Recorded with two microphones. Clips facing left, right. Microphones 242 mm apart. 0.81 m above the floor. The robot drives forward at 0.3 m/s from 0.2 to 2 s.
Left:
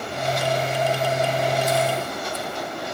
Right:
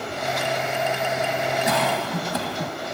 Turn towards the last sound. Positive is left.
turn(degrees=-80)